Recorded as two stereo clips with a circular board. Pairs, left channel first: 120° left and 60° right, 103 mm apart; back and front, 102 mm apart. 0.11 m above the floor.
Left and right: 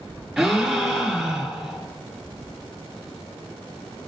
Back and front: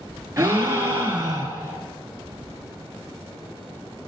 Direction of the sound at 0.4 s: 30° left.